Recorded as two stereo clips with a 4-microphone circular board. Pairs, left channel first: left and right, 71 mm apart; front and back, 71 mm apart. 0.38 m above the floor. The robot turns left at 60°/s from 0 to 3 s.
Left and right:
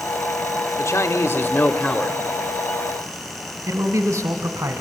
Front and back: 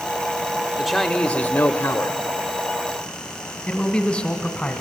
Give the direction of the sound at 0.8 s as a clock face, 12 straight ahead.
9 o'clock.